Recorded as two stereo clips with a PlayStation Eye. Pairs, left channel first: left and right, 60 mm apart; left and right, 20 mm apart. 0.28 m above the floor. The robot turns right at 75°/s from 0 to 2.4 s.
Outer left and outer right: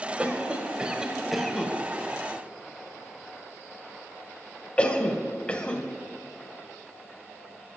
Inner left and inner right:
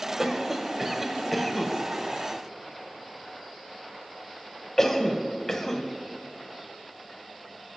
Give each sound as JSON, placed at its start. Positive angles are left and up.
{"t": 0.2, "sound": "a cough", "side_deg": -20, "distance_m": 1.3}